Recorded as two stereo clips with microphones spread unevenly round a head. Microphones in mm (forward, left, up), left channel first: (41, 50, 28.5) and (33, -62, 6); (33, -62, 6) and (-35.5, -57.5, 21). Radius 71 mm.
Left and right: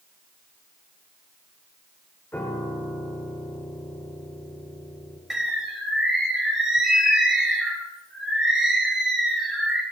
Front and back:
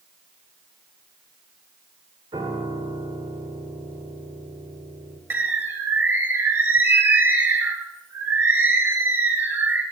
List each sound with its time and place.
2.3 s a piano: 160° left, 2 m
5.3 s a bird: 165° left, 1.1 m